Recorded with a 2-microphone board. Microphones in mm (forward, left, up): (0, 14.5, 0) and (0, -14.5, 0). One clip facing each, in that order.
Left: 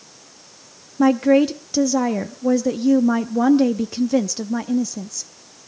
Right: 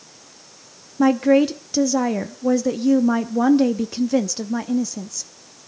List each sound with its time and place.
1.0 s a woman speaking: 5° left (ahead or behind), 0.6 m